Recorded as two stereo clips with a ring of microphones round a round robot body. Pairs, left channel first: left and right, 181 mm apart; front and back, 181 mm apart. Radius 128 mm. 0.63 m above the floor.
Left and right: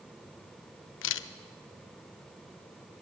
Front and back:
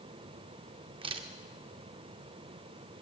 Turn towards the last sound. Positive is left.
turn(degrees=110)